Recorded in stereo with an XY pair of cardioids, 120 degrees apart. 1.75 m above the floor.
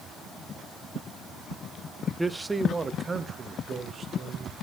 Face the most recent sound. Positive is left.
turn(degrees=-40)